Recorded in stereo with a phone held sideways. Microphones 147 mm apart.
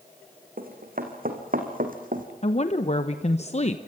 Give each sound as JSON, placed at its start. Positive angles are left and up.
{"t": 0.6, "sound": "running footsteps", "side_deg": -75, "distance_m": 4.5}
{"t": 2.4, "sound": "a woman speaking", "side_deg": 45, "distance_m": 1.0}